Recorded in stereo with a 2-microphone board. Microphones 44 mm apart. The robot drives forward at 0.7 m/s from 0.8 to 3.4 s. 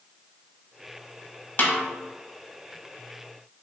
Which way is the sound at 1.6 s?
45° left (ahead or behind).